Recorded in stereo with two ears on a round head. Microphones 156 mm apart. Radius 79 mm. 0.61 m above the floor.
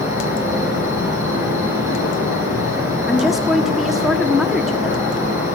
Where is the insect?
20° right (ahead or behind), 5 m.